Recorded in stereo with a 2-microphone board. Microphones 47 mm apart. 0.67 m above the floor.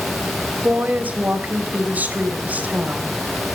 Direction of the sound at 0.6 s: 40° right (ahead or behind).